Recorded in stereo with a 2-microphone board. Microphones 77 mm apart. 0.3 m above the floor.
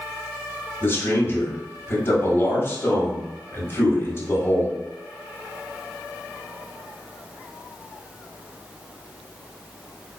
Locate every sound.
0.8 s a man speaking: 35° left (ahead or behind), 1.4 m